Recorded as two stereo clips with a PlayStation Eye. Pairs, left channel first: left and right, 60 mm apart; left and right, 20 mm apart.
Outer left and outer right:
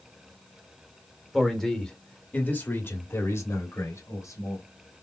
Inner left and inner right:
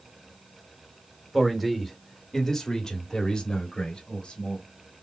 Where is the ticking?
I don't hear ticking.